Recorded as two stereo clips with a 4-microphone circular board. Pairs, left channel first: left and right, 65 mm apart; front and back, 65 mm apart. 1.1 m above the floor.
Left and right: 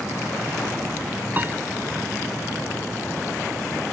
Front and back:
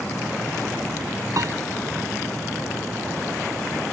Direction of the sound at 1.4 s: 150° right.